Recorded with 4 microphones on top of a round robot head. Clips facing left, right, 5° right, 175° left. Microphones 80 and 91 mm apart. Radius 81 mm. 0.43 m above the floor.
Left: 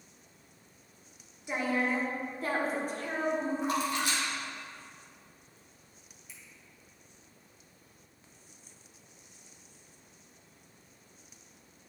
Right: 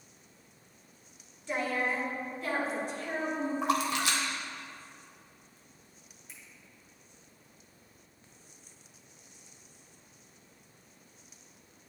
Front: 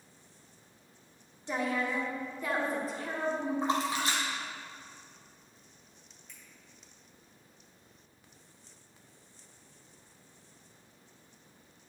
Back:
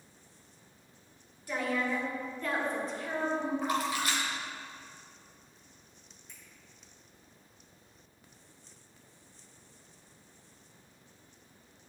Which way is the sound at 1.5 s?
30° left.